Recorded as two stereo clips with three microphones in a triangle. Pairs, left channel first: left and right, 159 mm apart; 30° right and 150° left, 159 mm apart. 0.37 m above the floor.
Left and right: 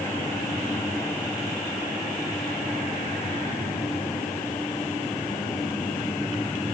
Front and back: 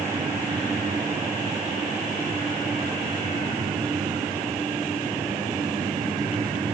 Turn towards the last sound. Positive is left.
No sound to turn to.